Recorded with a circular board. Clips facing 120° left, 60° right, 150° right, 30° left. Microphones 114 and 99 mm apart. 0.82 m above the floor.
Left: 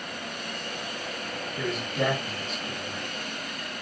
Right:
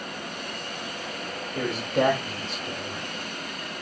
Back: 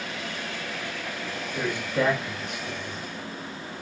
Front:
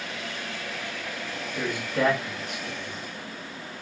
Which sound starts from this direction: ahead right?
A man speaking, at 1.6 s.